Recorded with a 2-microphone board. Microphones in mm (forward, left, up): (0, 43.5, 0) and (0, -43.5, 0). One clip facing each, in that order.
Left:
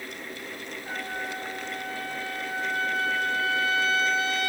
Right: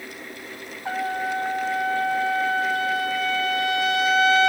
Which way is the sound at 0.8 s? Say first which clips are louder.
Right 9 dB; 80° right.